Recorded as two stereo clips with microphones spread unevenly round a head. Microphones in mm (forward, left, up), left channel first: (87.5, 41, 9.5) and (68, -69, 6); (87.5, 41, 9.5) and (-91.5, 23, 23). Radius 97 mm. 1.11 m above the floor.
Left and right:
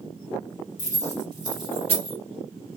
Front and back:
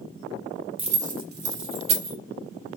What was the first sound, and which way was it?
Keys jangling, 125° left.